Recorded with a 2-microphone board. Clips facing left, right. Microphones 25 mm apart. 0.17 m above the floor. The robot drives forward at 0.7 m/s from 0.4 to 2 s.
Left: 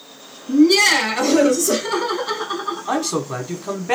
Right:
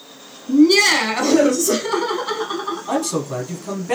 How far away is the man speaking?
About 1.0 m.